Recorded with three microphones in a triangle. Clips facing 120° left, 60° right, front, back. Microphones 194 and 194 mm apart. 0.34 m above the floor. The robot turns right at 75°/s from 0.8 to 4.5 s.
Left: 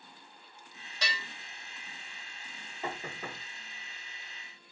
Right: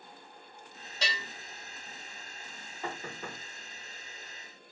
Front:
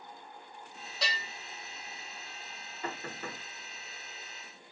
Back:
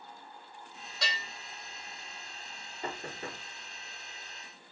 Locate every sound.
1.0 s a bell: 90° right, 1.8 m; by 1.2 s 75° right, 1.8 m
2.8 s knocking: 175° left, 1.0 m; by 3.4 s 140° right, 1.0 m